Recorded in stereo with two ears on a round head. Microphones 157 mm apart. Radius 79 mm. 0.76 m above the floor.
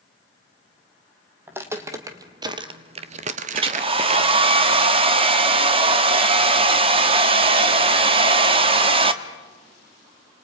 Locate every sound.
1.5 s footsteps: 10° right (ahead or behind), 2 m; by 4.5 s 35° right (ahead or behind), 1.4 m
3.5 s a hair dryer: 30° right (ahead or behind), 1.2 m